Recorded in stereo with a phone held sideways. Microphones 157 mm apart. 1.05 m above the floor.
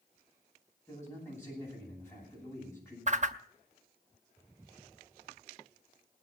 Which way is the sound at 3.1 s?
50° right (ahead or behind).